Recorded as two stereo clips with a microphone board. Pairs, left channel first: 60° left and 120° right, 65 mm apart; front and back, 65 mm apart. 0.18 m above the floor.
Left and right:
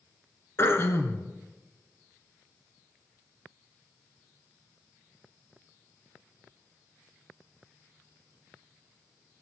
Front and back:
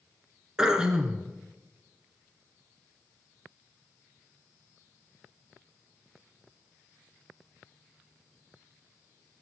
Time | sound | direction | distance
0.6 | throat clearing | 105° left | 1.4 m